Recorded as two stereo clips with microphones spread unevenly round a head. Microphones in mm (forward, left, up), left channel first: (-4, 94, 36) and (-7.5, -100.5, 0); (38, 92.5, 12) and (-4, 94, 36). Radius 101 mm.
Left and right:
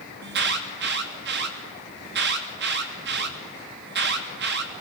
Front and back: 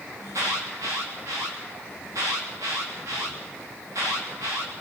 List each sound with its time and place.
0.2 s an alarm: 125° right, 3 m